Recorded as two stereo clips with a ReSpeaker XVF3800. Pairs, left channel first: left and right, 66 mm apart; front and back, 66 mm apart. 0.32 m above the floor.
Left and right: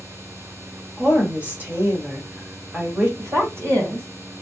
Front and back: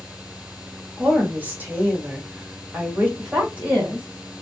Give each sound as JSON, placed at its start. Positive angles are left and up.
{"t": 1.0, "sound": "a woman speaking", "azimuth_deg": -140, "distance_m": 1.5}
{"t": 3.2, "sound": "a woman speaking", "azimuth_deg": -120, "distance_m": 1.9}